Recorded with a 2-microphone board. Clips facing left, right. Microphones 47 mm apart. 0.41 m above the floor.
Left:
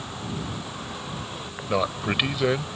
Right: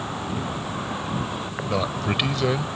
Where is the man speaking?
15° left (ahead or behind).